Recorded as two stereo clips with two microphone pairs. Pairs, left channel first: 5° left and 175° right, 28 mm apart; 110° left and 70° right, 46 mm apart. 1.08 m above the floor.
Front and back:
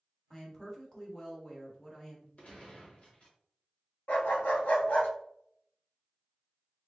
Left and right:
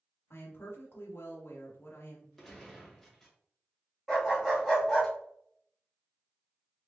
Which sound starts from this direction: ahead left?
A gunshot, at 2.4 s.